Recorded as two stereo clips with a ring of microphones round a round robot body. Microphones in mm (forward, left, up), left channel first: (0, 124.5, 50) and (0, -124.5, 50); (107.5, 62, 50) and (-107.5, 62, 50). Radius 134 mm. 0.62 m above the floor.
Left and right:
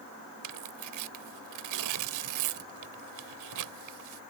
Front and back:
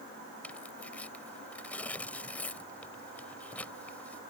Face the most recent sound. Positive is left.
turn(degrees=-85)